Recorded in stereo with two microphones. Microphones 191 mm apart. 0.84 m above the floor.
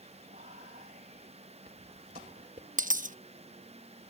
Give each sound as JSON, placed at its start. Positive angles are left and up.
{"t": 0.3, "sound": "whispering", "side_deg": -50}
{"t": 2.8, "sound": "a dropped coin", "side_deg": -45}